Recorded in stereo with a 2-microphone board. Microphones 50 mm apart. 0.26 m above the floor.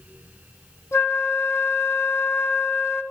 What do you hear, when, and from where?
0.9 s a flute: 65° left (ahead or behind), 2.5 m